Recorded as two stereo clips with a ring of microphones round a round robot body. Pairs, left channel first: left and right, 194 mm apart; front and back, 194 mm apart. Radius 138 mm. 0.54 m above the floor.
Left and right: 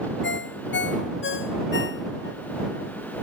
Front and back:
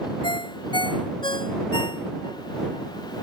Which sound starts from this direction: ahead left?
A ringtone, at 0.2 s.